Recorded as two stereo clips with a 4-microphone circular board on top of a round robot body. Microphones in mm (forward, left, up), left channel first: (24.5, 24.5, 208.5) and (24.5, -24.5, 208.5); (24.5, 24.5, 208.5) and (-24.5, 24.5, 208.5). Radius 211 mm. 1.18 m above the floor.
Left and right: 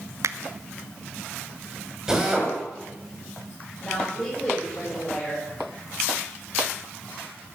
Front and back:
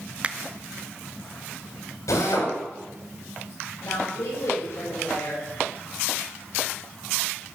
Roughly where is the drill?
Ahead.